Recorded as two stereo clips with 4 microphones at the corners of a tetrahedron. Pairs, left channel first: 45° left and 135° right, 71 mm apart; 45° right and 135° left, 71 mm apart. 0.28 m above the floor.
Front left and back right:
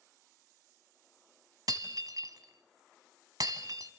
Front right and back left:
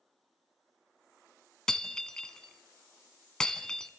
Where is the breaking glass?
125° right, 1.3 m.